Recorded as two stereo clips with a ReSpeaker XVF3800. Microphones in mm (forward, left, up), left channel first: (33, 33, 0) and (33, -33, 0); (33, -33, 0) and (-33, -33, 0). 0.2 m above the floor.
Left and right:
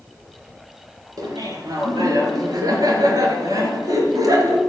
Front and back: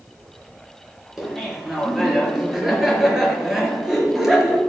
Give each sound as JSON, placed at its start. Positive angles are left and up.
{"t": 1.2, "sound": "laughter", "azimuth_deg": -95, "distance_m": 3.0}